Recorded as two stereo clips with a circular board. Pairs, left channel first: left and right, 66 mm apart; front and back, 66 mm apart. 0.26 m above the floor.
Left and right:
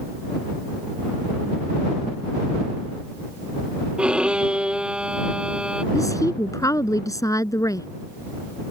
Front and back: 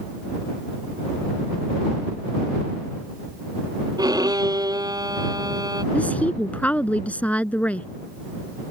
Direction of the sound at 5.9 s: 65° left.